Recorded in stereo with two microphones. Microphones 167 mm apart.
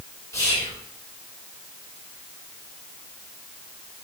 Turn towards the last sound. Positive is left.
turn(degrees=20)  # may be behind; listen again after turning